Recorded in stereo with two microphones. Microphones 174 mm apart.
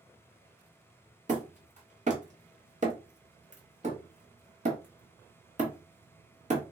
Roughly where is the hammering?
Right.